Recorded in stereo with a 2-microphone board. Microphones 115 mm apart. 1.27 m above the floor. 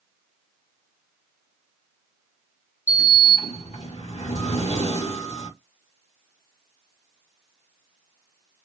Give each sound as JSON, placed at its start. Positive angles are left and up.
{"t": 2.9, "sound": "a sliding door", "side_deg": 80, "distance_m": 1.6}